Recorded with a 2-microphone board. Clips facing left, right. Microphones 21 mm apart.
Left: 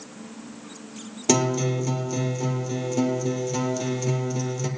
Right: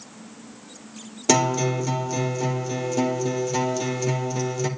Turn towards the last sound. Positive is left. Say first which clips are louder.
# right 2 dB
turn(degrees=-10)  # may be behind; listen again after turning